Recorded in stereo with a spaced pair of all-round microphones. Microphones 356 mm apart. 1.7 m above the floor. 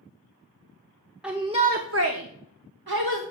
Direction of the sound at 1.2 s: 5° right (ahead or behind).